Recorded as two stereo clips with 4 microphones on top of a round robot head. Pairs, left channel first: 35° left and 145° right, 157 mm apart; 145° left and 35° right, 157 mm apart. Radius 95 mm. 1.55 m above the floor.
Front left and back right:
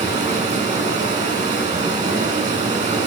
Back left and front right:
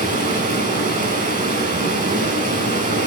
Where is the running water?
80° right, 3 m.